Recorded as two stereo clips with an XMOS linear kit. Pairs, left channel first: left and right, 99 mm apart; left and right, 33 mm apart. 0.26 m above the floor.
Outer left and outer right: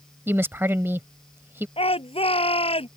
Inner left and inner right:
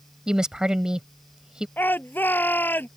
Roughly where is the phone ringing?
No phone ringing in this recording.